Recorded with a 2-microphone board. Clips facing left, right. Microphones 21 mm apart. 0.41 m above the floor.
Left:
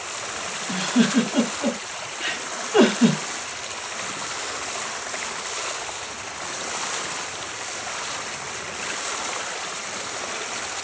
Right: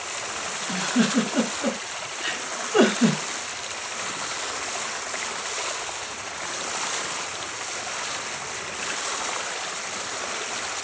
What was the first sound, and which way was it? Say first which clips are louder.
A giggle: left 2 dB; 55° left (ahead or behind).